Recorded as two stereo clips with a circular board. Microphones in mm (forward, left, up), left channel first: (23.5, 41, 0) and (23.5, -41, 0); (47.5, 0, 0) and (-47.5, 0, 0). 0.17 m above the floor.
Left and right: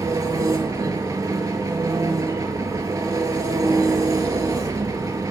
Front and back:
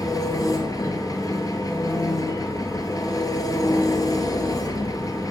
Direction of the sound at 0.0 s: 45° right.